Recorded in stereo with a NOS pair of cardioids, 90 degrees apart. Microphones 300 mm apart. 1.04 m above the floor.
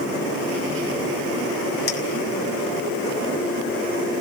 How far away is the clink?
About 2.5 m.